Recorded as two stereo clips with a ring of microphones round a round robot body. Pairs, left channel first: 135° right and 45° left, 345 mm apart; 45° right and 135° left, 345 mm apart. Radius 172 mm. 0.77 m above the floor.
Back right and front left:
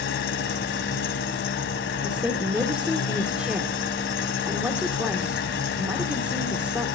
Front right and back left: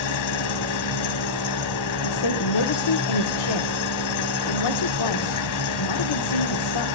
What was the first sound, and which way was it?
An engine running, 80° right.